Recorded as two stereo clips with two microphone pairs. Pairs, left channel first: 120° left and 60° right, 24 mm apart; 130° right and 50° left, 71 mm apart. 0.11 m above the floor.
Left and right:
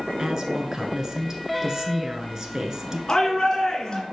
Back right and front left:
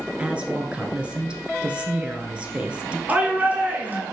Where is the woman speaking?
15° right, 1.3 m.